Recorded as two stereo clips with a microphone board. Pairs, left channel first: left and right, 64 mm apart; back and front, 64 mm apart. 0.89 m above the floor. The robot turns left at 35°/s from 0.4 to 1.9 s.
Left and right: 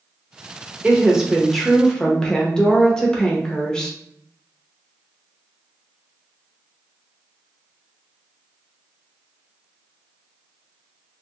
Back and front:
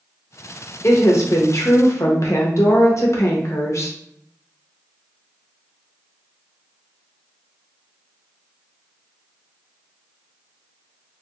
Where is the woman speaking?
160° right, 0.8 m; by 4.0 s 165° left, 0.8 m.